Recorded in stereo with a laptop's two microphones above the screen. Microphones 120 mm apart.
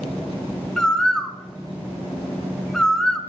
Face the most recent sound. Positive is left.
turn(degrees=5)  # may be behind; listen again after turning